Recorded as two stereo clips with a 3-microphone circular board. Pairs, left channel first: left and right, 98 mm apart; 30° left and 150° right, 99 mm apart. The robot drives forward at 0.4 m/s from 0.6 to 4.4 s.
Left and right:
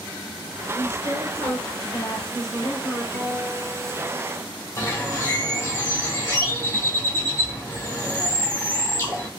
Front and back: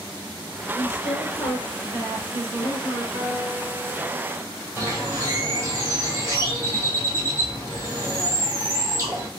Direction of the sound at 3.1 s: 160° left.